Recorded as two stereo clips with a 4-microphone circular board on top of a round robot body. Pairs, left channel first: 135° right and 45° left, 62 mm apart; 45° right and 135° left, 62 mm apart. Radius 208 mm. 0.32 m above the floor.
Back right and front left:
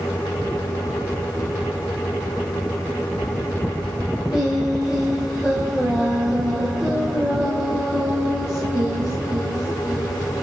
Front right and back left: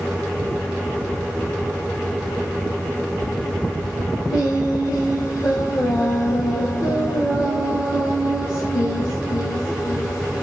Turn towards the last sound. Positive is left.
turn(degrees=-40)